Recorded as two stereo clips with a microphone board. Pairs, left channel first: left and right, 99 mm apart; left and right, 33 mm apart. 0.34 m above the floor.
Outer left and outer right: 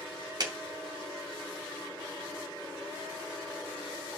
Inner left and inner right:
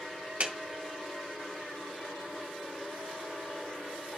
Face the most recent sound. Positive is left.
turn(degrees=-45)  # may be behind; listen again after turning